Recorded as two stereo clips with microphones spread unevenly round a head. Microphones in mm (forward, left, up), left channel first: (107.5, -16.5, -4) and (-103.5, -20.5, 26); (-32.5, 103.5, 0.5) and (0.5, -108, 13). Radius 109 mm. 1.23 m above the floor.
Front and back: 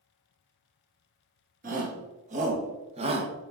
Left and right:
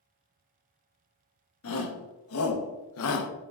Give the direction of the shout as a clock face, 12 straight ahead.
8 o'clock.